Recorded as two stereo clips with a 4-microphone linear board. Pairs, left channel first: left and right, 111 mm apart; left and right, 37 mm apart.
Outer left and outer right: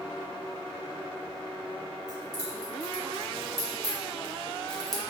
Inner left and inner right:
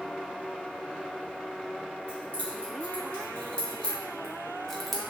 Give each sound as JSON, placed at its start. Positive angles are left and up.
{"t": 2.1, "sound": "keys jangling", "side_deg": 40, "distance_m": 1.9}